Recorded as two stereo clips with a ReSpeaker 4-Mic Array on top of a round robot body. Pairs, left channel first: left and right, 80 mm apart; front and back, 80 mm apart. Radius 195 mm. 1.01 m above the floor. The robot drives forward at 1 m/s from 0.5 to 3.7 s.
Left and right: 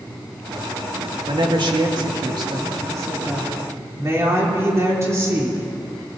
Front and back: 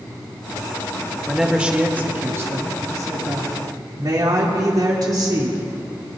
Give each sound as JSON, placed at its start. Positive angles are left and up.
{"t": 1.3, "sound": "a woman speaking", "azimuth_deg": -95, "distance_m": 2.0}